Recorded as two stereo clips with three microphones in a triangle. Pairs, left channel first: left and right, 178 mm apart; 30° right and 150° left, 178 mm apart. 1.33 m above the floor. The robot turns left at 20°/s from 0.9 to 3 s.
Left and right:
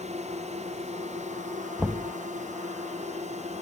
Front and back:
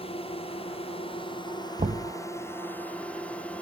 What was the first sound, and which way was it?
A drone, 70° right.